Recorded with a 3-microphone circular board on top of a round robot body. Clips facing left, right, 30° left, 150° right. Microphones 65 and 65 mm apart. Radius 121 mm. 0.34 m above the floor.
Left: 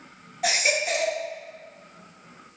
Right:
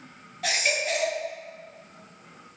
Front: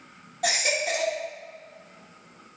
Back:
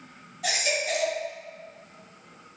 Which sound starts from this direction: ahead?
A baby crying, at 0.4 s.